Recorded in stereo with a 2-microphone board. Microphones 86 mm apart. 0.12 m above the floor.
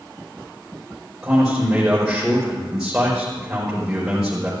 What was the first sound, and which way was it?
A man speaking, 15° right (ahead or behind).